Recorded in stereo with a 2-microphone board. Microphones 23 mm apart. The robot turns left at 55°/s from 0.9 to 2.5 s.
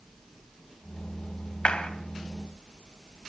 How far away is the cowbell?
No cowbell in this recording.